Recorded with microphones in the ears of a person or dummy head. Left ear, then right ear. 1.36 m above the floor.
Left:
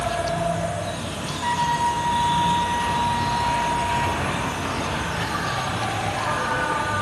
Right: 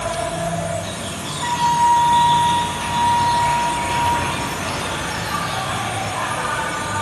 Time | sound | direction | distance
0.0 | an insect | 40° right (ahead or behind) | 4 m
1.4 | a flute | 30° right (ahead or behind) | 4.5 m